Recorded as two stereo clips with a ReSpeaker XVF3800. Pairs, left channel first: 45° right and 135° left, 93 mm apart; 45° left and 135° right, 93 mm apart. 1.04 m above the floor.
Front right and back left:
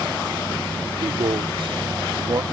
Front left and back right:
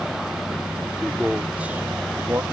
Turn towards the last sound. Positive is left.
turn(degrees=175)